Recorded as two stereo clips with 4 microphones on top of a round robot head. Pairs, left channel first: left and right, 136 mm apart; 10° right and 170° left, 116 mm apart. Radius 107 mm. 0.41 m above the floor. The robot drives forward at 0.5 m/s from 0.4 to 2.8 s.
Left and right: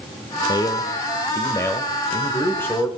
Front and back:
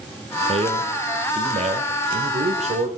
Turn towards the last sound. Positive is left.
turn(degrees=165)